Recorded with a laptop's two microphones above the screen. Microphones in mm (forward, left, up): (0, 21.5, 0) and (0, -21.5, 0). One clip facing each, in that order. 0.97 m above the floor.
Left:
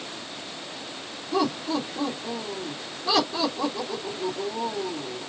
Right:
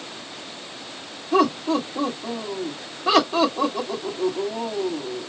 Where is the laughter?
75° right (ahead or behind), 2.5 m.